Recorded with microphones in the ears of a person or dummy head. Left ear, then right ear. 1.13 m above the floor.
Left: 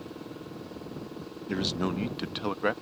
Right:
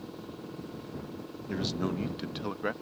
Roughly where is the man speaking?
Centre.